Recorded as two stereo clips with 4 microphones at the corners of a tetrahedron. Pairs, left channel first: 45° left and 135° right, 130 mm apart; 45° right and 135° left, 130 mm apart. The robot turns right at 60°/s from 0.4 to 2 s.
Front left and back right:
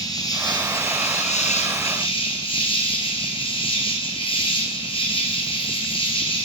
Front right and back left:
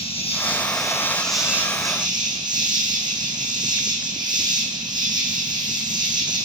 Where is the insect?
10° right, 2.5 m; by 6.5 s 85° left, 2.5 m.